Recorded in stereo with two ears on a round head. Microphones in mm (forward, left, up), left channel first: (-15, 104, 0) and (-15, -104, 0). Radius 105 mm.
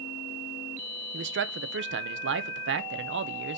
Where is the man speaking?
50° right (ahead or behind), 0.9 m.